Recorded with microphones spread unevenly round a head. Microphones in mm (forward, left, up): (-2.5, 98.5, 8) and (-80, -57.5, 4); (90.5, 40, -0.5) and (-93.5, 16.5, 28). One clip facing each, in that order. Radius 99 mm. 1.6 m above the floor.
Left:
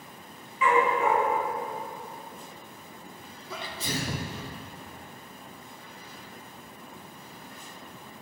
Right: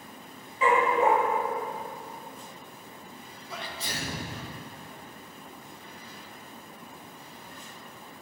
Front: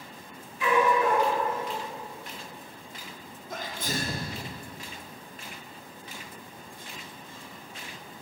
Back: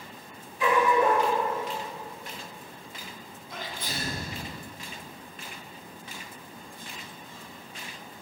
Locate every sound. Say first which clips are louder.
0.6 s a dog barking: right 1 dB, back 1 dB; 150° right, 1.7 m
3.5 s a sneeze: left 4 dB, front 4 dB; 55° left, 1.2 m